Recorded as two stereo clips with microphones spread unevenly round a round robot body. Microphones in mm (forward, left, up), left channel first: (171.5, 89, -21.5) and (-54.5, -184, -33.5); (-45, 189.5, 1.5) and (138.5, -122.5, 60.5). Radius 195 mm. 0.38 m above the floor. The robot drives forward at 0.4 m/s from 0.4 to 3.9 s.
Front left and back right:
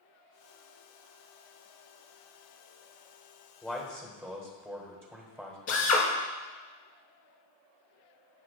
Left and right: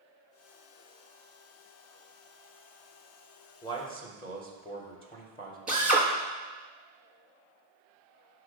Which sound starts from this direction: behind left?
A man speaking, at 3.6 s.